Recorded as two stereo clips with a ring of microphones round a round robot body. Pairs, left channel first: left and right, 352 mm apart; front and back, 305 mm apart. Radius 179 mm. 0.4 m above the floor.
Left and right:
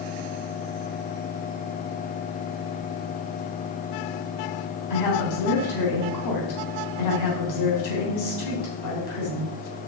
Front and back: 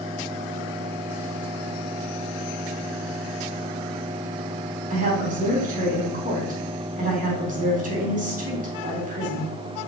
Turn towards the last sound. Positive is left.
turn(degrees=115)